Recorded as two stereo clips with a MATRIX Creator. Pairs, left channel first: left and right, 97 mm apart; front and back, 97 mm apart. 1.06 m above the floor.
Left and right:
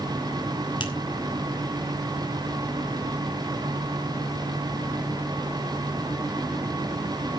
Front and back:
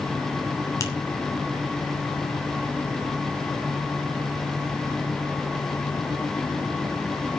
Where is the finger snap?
55° left, 3 m.